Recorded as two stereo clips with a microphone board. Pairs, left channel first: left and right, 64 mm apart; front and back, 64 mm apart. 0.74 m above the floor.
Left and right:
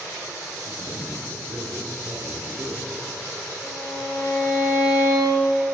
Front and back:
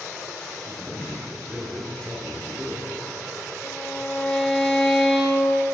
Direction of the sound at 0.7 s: 80° right.